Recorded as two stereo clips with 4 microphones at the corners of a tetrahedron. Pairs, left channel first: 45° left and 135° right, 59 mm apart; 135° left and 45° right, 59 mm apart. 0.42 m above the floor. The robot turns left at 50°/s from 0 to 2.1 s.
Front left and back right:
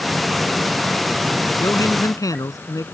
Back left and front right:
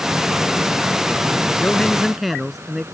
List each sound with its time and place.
1.6 s a man speaking: 70° left; by 2.9 s 45° left